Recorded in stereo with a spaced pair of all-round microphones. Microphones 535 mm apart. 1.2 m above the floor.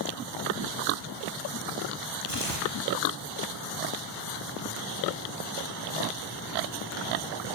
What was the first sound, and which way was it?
Tearing paper, 75° left (ahead or behind).